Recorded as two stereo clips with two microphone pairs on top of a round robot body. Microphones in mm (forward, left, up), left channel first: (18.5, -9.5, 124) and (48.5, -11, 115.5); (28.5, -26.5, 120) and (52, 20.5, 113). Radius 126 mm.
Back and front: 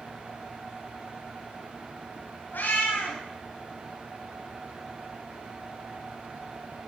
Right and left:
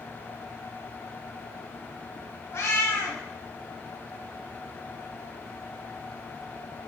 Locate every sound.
2.5 s a cat meowing: 165° right, 1.0 m